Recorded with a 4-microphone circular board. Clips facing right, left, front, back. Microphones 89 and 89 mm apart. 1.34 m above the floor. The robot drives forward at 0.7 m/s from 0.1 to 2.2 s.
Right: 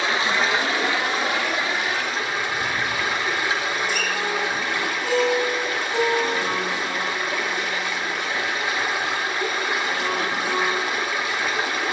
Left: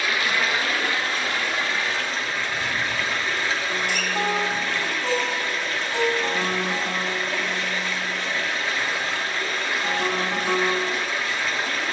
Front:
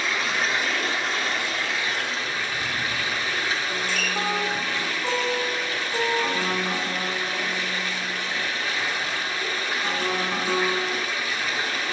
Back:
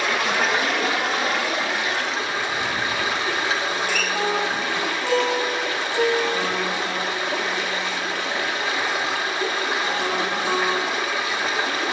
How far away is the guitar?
About 8.5 m.